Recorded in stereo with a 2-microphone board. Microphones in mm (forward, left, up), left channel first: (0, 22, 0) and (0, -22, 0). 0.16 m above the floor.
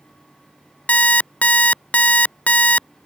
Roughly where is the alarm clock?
Left.